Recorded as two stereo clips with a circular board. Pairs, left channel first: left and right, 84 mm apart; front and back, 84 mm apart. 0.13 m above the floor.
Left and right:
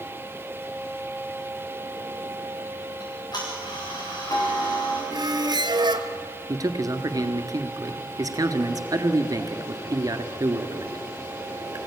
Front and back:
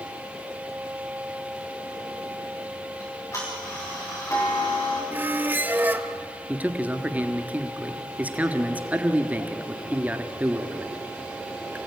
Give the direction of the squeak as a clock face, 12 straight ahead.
4 o'clock.